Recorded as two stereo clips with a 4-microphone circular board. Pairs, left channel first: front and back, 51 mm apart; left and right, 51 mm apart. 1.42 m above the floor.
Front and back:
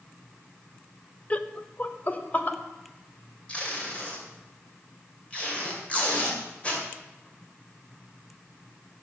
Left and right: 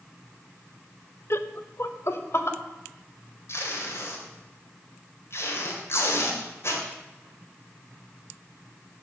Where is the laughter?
60° left, 0.7 m; by 2.6 s 55° left, 1.4 m.